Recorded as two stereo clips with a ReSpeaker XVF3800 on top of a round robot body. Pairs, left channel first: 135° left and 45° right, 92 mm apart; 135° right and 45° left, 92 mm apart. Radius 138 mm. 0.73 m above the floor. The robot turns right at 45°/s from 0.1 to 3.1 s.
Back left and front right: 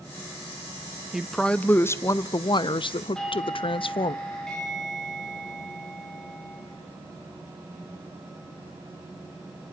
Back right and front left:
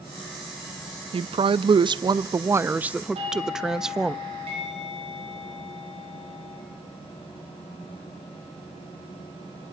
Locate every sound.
1.1 s a woman speaking: 40° left, 0.7 m; by 4.2 s 130° left, 0.7 m
3.1 s a doorbell: 50° left, 7 m